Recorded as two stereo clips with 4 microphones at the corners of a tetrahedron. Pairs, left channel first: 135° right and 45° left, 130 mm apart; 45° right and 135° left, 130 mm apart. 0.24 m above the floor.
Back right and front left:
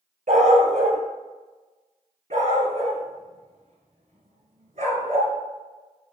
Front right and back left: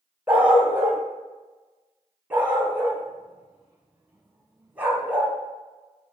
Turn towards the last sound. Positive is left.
turn(degrees=60)